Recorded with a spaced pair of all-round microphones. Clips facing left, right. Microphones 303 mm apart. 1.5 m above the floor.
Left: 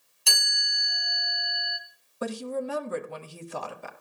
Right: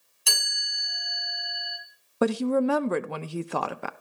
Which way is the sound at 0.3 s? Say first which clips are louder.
Right 1 dB; centre (ahead or behind).